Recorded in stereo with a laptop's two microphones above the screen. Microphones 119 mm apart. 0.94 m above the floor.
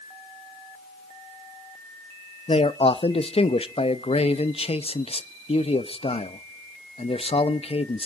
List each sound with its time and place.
2.5 s a man speaking: 50° left (ahead or behind), 0.8 m